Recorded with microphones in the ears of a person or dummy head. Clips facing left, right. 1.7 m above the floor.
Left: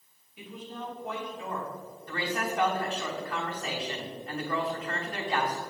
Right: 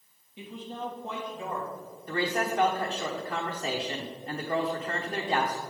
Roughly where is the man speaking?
Centre.